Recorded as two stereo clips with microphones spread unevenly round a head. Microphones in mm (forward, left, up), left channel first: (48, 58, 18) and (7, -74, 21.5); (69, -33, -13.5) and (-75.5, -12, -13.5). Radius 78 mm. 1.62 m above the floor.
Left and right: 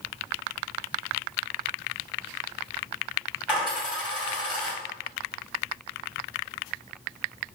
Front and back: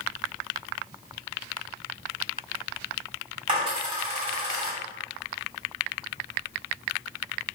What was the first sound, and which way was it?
A dropped coin, 160° left.